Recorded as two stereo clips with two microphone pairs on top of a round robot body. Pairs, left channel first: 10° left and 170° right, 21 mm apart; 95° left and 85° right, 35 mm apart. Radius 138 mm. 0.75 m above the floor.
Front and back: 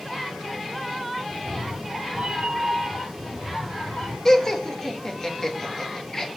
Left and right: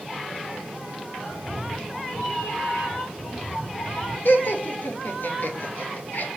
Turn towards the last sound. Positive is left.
turn(degrees=80)